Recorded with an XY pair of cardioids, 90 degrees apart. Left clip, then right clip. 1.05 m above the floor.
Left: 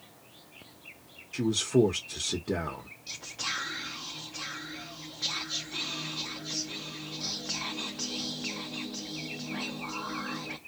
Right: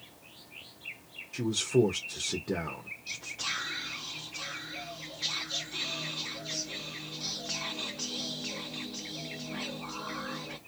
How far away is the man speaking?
About 0.9 m.